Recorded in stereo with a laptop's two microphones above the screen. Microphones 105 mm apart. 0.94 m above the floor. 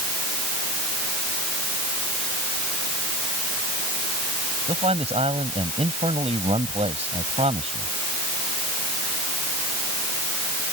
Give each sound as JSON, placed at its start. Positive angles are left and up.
{"t": 4.7, "sound": "a man speaking", "side_deg": -75}